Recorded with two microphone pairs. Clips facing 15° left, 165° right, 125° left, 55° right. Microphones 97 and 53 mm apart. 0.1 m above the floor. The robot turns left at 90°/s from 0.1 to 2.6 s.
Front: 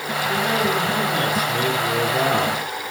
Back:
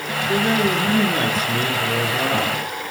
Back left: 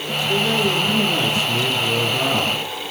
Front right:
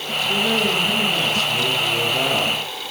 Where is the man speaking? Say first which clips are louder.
Back 2 dB, back left 1 dB; 95° right, 1.4 m; by 2.6 s 55° left, 1.4 m.